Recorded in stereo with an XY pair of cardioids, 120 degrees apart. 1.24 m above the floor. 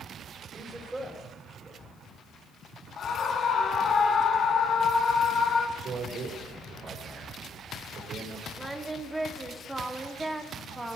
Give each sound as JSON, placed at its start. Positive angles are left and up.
{"t": 0.5, "sound": "a man speaking", "azimuth_deg": -15, "distance_m": 5.5}
{"t": 3.0, "sound": "a scream", "azimuth_deg": 45, "distance_m": 2.0}
{"t": 5.8, "sound": "a man speaking", "azimuth_deg": -50, "distance_m": 5.0}
{"t": 8.6, "sound": "singing", "azimuth_deg": -10, "distance_m": 1.5}